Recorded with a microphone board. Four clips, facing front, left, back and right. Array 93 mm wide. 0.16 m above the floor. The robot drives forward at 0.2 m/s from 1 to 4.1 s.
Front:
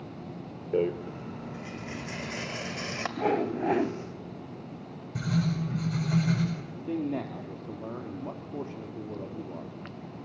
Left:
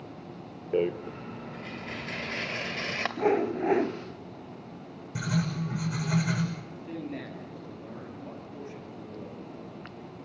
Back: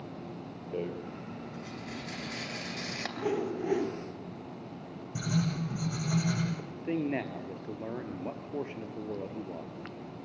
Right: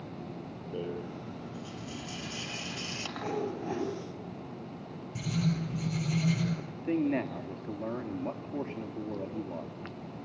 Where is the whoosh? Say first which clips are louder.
Left 9 dB, front 4 dB; 50° left, 1.3 m; by 3.9 s 55° left, 1.2 m.